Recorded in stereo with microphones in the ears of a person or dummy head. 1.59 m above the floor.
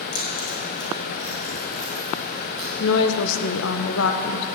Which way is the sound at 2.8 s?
70° left (ahead or behind).